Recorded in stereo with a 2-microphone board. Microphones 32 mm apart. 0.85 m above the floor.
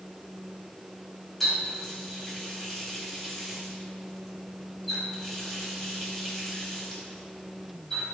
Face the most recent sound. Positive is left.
turn(degrees=5)  # may be behind; listen again after turning